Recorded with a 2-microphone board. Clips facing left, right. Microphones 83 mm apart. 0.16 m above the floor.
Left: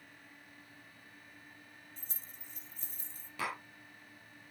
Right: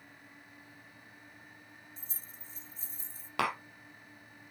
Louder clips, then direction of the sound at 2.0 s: Right 1 dB; 60° left (ahead or behind).